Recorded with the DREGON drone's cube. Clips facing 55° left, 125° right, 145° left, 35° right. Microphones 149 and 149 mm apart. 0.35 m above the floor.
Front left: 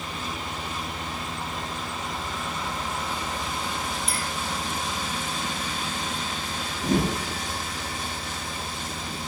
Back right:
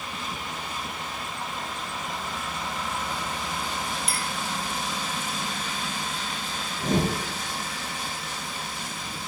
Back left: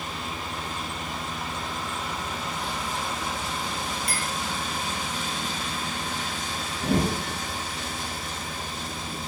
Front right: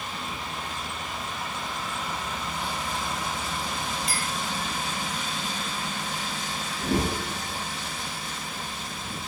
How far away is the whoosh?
About 3.5 m.